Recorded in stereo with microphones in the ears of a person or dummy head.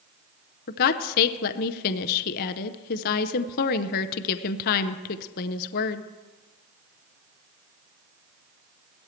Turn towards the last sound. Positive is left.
turn(degrees=50)  # may be behind; listen again after turning